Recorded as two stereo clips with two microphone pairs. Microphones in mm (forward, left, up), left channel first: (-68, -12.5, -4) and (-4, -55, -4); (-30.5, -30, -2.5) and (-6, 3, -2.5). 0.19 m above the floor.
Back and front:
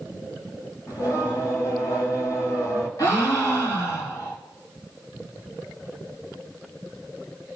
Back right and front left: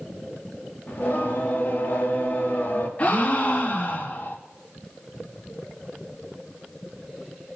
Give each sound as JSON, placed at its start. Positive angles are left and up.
{"t": 0.9, "sound": "singing", "azimuth_deg": -175, "distance_m": 5.5}
{"t": 3.0, "sound": "a gasp", "azimuth_deg": 180, "distance_m": 3.5}